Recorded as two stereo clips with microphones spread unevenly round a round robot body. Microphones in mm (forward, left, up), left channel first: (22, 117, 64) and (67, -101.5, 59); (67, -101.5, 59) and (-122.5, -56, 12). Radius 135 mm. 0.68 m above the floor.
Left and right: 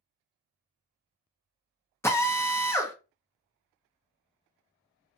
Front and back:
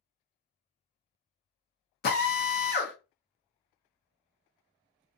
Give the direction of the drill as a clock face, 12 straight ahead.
11 o'clock.